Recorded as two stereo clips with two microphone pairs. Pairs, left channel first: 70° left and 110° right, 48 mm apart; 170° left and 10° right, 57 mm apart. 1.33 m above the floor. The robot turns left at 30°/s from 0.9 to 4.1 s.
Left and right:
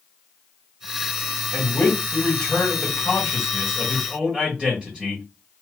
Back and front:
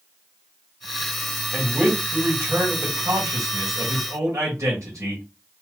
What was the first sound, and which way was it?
A man speaking, 45° left.